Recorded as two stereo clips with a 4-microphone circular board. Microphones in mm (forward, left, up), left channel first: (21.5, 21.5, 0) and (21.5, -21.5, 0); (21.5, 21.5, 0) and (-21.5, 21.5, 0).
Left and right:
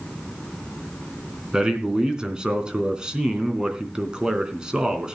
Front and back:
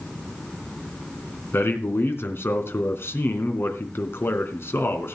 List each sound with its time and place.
1.5 s a man speaking: 20° right, 3 m